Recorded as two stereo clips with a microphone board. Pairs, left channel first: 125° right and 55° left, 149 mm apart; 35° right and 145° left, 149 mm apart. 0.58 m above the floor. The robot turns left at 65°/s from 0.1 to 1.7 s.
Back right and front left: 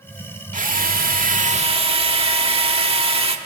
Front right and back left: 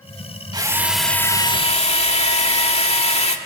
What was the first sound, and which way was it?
A drill, 85° left.